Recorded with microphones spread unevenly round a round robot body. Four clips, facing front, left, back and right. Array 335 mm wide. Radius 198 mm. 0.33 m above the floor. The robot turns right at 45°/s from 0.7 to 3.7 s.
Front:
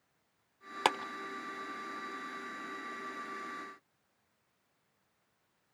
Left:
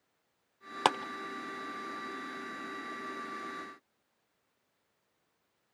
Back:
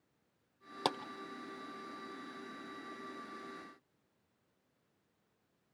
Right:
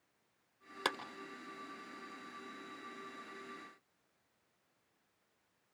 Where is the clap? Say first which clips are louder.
Left 10 dB, front 5 dB; 55° left, 0.7 m; by 1.0 s 60° left, 0.7 m.